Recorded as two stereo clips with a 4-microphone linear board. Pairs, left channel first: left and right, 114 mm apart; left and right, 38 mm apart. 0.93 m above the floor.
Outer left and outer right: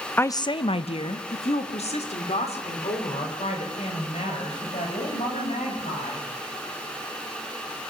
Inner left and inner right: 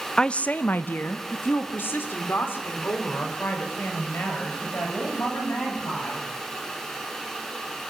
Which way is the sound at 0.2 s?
15° left (ahead or behind).